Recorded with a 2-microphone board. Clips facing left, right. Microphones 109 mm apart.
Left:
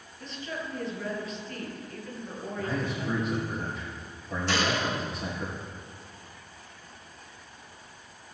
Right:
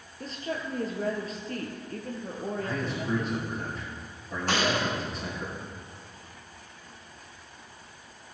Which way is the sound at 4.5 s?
50° right (ahead or behind).